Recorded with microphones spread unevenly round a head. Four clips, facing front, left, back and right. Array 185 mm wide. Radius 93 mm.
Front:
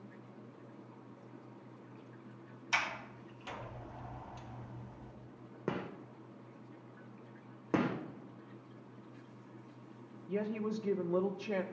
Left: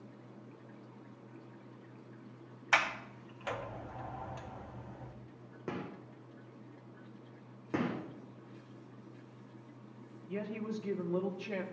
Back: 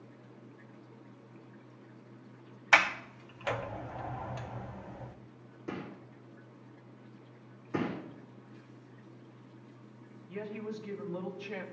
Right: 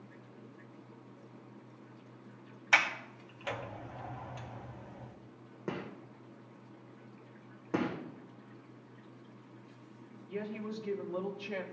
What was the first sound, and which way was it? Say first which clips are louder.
A sliding door: right 1 dB, back 10 dB; 170° right.